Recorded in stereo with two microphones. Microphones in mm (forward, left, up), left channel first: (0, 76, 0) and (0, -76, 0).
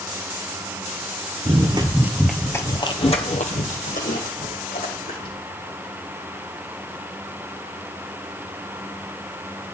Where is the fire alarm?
No fire alarm in this recording.